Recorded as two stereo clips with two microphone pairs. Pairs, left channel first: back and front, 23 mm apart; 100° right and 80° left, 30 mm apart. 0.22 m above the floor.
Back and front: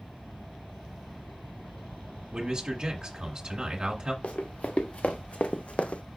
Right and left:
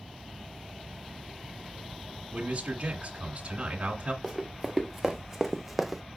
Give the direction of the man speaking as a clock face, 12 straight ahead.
11 o'clock.